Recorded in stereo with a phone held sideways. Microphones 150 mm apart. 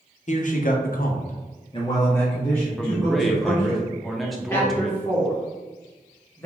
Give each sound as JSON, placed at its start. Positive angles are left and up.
{"t": 0.3, "sound": "a man speaking", "side_deg": 55, "distance_m": 0.7}
{"t": 2.8, "sound": "a man speaking", "side_deg": 0, "distance_m": 0.6}
{"t": 4.5, "sound": "a man speaking", "side_deg": 15, "distance_m": 1.2}